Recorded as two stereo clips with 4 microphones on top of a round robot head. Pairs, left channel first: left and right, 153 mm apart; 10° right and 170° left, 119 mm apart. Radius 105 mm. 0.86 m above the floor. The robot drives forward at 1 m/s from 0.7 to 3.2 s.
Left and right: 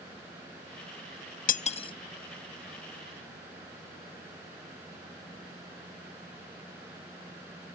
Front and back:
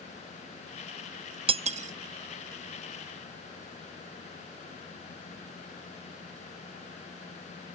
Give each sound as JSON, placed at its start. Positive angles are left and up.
{"t": 1.5, "sound": "cutlery clinking", "azimuth_deg": 125, "distance_m": 0.5}